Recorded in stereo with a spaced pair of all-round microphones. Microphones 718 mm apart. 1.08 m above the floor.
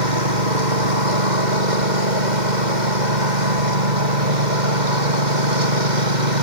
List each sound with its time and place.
0.0 s a lawn mower: 85° right